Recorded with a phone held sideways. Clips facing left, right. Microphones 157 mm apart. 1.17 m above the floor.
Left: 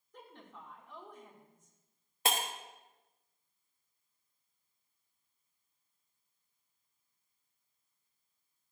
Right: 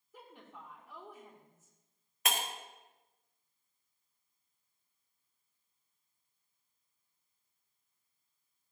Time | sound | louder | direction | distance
0.1 | a woman speaking | even | 5° right (ahead or behind) | 1.6 m
2.2 | breaking glass | left 2 dB | 30° left (ahead or behind) | 0.9 m